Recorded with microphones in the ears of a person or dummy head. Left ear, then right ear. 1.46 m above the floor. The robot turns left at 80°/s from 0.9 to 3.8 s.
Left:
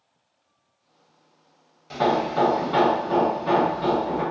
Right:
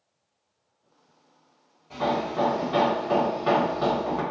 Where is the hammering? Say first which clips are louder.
Left 4 dB; 70° left, 0.9 m; by 4.2 s 85° right, 0.9 m.